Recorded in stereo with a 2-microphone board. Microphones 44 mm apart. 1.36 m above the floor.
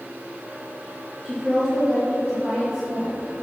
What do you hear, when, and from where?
1.2 s a woman speaking: 15° right (ahead or behind), 1.8 m